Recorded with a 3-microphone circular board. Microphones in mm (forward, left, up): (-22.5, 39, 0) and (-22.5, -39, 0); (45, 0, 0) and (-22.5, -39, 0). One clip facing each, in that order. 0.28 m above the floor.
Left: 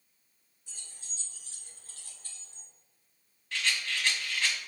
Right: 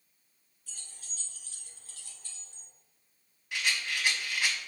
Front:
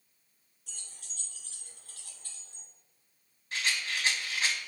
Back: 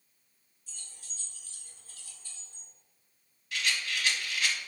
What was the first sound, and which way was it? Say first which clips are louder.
Keys jangling: even, front 1 dB; 25° left.